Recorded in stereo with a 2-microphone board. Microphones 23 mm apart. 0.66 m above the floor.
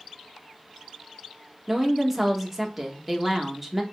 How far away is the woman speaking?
About 1.0 m.